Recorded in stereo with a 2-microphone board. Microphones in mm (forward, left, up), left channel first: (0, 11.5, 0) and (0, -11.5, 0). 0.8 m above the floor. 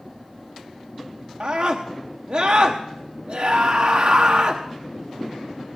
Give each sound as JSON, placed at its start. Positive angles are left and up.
{"t": 1.4, "sound": "a scream", "side_deg": -60, "distance_m": 0.9}